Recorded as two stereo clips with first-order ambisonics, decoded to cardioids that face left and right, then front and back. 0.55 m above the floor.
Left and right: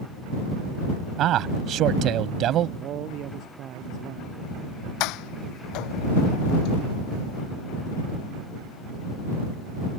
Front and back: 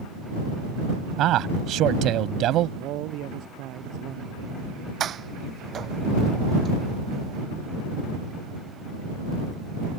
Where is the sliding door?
120° left.